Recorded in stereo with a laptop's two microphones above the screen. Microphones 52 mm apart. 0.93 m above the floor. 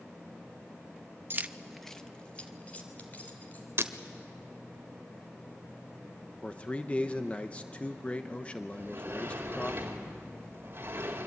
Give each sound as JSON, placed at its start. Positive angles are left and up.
{"t": 1.3, "sound": "keys jangling", "side_deg": -50, "distance_m": 0.5}
{"t": 3.8, "sound": "breaking glass", "side_deg": -55, "distance_m": 1.2}
{"t": 6.4, "sound": "a man speaking", "side_deg": 25, "distance_m": 0.9}
{"t": 8.7, "sound": "a sliding door", "side_deg": -45, "distance_m": 3.5}